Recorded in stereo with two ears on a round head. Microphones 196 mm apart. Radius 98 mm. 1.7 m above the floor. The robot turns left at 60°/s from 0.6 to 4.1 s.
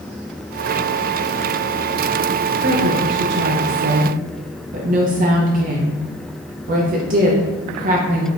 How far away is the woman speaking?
About 0.6 m.